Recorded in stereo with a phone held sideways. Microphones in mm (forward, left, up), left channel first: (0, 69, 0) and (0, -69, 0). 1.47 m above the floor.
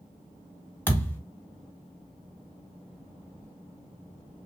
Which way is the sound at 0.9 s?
10° left (ahead or behind).